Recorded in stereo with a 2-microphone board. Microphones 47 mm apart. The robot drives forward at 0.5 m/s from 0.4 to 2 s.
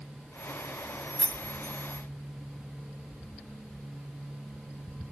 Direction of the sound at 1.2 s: 20° left (ahead or behind).